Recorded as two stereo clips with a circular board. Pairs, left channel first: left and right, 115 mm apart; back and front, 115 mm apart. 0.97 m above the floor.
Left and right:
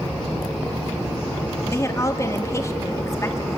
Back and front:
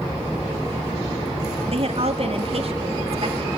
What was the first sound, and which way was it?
A woman speaking, 25° left.